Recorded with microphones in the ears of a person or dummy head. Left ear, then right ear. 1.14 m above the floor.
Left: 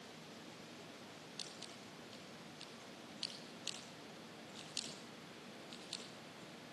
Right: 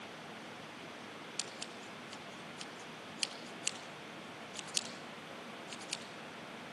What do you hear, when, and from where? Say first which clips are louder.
1.4 s scissors: right 6 dB; 60° right (ahead or behind), 1.8 m